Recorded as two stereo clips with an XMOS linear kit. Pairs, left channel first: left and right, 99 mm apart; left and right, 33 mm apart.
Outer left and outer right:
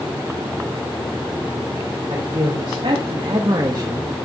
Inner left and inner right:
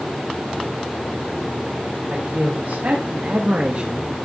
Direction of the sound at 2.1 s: 70° right (ahead or behind).